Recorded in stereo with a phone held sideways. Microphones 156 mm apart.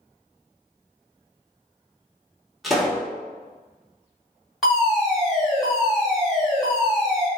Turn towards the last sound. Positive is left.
turn(degrees=0)  # may be behind; listen again after turning